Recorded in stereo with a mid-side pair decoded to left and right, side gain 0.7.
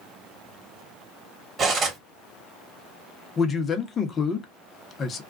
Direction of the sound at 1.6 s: 30° right.